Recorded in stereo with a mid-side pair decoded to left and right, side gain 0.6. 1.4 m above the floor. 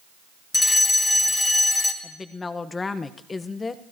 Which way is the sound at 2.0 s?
25° left.